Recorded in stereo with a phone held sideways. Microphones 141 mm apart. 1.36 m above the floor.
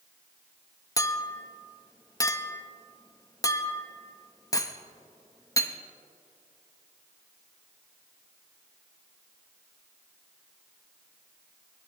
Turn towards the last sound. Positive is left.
turn(degrees=25)  # may be behind; listen again after turning